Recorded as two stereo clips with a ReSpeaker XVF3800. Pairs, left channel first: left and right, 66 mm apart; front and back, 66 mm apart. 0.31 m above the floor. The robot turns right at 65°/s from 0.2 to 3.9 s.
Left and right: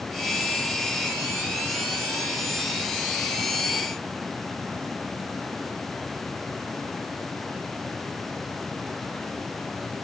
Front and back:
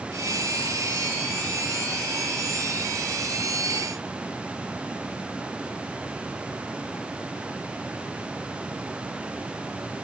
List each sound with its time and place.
Only background noise.